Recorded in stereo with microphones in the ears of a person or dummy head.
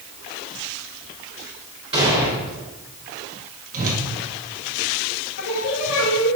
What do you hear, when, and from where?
1.9 s an explosion: 25° right (ahead or behind), 1.8 m
3.7 s a whoosh: 45° right (ahead or behind), 1.3 m
5.4 s singing: 75° left (ahead or behind), 2.5 m